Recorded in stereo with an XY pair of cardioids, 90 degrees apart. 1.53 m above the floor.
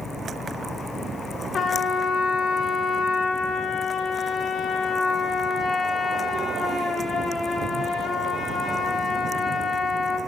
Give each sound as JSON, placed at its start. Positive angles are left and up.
{"t": 1.5, "sound": "a trumpet", "azimuth_deg": 60, "distance_m": 1.2}